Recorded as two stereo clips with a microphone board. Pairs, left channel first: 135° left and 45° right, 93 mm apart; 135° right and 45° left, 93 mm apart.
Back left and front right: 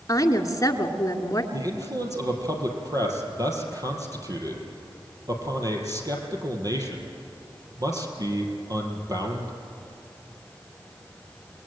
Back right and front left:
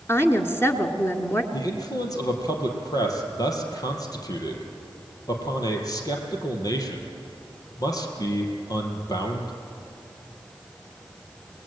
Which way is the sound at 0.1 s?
175° left.